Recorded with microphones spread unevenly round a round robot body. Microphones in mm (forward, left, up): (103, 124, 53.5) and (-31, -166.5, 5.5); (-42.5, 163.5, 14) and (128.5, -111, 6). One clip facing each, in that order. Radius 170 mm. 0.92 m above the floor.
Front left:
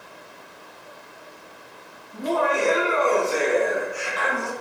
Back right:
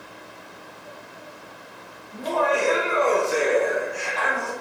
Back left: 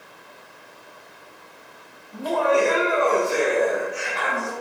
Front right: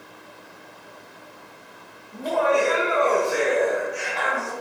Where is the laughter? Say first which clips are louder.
Even, back left 1 dB; 140° right, 1.3 m; by 4.5 s 75° left, 0.7 m.